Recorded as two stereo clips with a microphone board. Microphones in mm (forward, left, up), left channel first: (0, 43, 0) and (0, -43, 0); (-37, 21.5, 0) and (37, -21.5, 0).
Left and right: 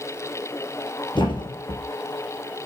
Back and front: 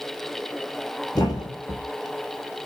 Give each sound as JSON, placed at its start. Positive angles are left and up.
{"t": 1.1, "sound": "a thud", "azimuth_deg": 110, "distance_m": 2.5}